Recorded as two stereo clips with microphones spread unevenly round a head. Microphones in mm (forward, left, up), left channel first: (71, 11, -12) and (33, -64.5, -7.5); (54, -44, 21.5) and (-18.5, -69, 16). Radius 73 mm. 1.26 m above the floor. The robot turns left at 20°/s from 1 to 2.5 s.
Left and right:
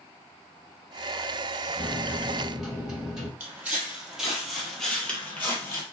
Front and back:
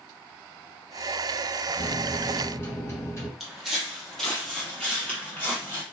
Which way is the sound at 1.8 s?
20° right.